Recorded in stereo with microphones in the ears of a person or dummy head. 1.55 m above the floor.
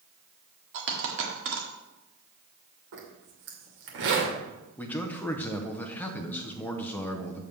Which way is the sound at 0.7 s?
60° right (ahead or behind).